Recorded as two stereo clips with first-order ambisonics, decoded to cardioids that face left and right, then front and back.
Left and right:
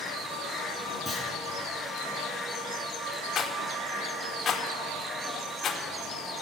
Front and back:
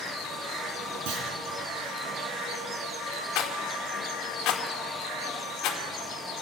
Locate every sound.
1.1 s a clunk: 170° right, 7 m
3.4 s a rattle: 30° left, 2.5 m